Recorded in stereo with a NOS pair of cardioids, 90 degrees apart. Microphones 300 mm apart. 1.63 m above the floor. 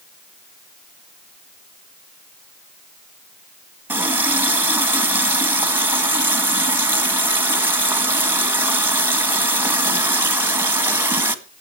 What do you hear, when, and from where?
3.9 s a running tap: 5° right, 1.8 m